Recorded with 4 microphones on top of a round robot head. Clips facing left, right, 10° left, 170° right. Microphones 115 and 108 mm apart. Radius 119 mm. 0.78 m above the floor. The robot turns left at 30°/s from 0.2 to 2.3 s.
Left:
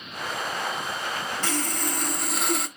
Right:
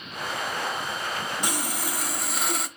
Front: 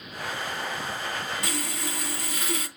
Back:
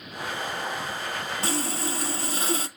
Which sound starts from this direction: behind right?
Sawing, at 1.4 s.